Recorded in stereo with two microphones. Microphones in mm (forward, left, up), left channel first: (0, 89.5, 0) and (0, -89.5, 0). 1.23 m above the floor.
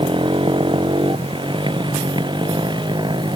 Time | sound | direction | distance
0.0 | a motorcycle | 30° right (ahead or behind) | ?